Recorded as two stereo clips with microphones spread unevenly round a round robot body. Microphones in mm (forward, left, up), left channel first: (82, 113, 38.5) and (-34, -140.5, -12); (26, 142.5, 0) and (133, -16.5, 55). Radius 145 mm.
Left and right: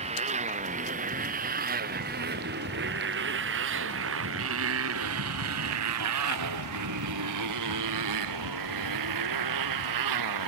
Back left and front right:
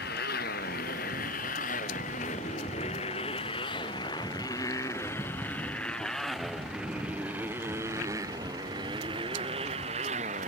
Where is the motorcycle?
175° left; by 10.5 s 120° right.